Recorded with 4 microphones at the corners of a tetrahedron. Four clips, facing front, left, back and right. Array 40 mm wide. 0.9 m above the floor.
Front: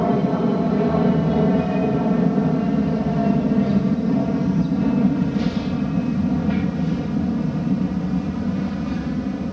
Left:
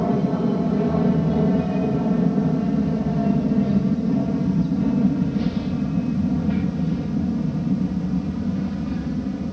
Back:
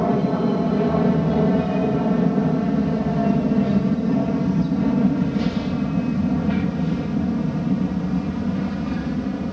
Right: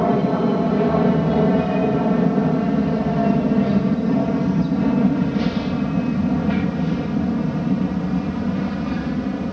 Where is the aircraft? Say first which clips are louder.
Right 3 dB, front 1 dB; 90° right; by 9.5 s 100° right.